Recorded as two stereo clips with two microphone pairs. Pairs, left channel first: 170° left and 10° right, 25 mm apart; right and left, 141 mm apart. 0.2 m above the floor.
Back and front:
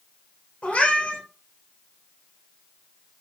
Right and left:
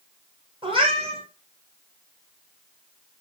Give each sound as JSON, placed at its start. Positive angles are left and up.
{"t": 0.6, "sound": "a cat meowing", "azimuth_deg": 135, "distance_m": 2.0}